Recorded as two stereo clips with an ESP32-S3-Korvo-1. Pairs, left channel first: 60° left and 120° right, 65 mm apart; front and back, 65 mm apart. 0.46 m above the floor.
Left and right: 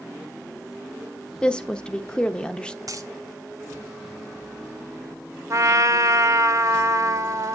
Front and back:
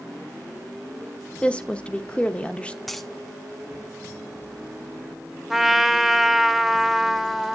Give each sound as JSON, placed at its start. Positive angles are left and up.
{"t": 1.4, "sound": "a woman speaking", "azimuth_deg": 20, "distance_m": 0.7}
{"t": 2.9, "sound": "a dropped coin", "azimuth_deg": -90, "distance_m": 1.1}
{"t": 5.5, "sound": "a trumpet", "azimuth_deg": -95, "distance_m": 0.8}